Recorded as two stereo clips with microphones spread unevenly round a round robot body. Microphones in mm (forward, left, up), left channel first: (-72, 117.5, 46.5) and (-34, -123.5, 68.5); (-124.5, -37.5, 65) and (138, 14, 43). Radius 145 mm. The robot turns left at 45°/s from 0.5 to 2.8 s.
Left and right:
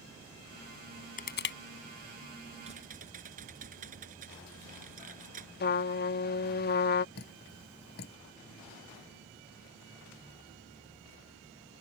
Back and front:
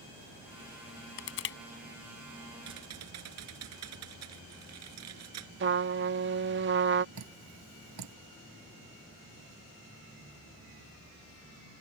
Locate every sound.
1.2 s crushing: 155° left; by 1.6 s 140° left
2.6 s typing on a keyboard: 10° right; by 5.5 s 20° right
5.6 s a trumpet: 55° left
7.2 s dripping: 40° left